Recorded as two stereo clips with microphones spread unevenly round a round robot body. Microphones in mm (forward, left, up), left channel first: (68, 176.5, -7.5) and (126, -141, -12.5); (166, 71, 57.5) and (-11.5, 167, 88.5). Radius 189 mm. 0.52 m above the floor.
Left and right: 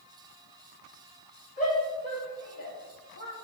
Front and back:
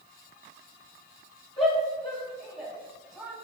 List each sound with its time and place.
1.6 s a shout: 35° left, 5 m; by 3.3 s 60° left, 4.5 m